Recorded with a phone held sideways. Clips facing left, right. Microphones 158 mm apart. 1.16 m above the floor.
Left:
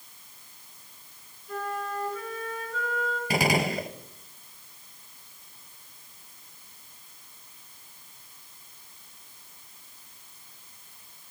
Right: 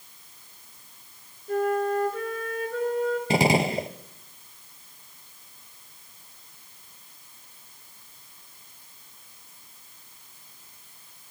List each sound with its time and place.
1.5 s a flute: 55° right (ahead or behind), 3 m
3.3 s a gunshot: 25° right (ahead or behind), 1.1 m